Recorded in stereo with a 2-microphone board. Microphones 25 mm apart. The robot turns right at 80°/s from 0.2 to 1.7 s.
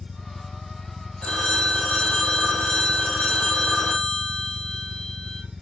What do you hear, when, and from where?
0.0 s an engine running: 85° left, 0.7 m; by 5.6 s 155° right, 0.7 m
1.2 s a phone ringing: 55° left, 4 m; by 5.4 s 95° left, 4 m